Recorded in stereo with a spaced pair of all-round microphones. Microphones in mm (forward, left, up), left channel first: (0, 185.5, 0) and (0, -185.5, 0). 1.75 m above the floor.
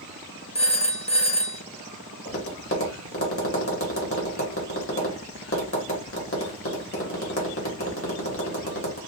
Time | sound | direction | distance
0.6 | a phone ringing | 15° left (ahead or behind) | 0.6 m
2.2 | tapping | 35° left (ahead or behind) | 1.4 m